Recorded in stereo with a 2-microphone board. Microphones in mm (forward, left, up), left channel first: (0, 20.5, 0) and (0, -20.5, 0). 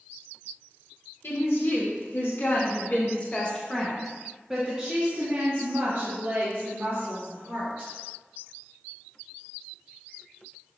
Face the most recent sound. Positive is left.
turn(degrees=-55)  # may be behind; listen again after turning